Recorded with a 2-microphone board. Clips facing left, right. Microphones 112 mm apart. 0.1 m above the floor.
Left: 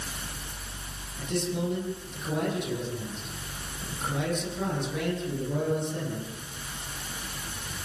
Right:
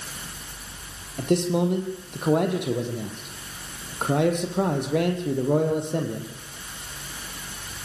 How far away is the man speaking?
About 4.5 m.